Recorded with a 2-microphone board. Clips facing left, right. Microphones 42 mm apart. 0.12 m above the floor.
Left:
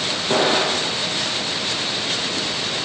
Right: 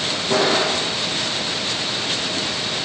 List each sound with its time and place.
0.3 s an explosion: 35° left (ahead or behind), 5 m